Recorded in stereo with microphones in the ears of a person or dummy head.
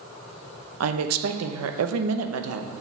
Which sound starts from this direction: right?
A woman speaking, at 0.8 s.